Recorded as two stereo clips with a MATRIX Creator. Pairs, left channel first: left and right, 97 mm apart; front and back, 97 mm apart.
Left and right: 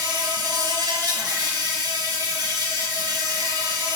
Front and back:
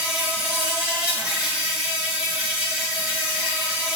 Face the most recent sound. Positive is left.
turn(degrees=-105)